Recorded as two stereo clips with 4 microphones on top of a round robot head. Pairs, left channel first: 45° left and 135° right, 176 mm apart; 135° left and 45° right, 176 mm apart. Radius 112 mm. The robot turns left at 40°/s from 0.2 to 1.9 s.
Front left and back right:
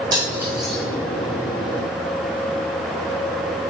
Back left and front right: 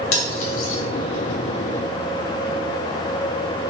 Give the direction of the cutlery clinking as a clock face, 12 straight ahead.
7 o'clock.